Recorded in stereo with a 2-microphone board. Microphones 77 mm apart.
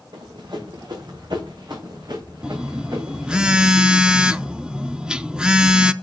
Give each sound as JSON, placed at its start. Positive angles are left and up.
{"t": 0.1, "sound": "running footsteps", "side_deg": -75, "distance_m": 3.5}
{"t": 2.4, "sound": "a phone buzzing", "side_deg": -10, "distance_m": 0.5}